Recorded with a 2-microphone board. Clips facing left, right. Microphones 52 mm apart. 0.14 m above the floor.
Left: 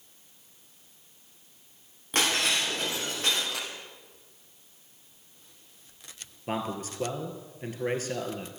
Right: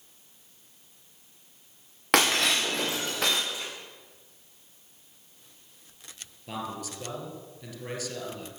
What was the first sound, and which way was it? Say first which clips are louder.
Breaking glass: right 3 dB; 85° right.